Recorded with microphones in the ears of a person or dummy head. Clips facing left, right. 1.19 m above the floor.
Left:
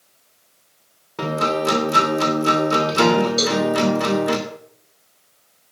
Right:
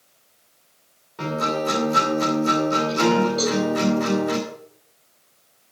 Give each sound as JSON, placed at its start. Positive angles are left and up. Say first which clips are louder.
{"t": 1.2, "sound": "a guitar", "louder": "left 3 dB", "side_deg": 75, "distance_m": 3.0}
{"t": 3.4, "sound": "a cowbell", "louder": "left 1 dB", "side_deg": 35, "distance_m": 7.0}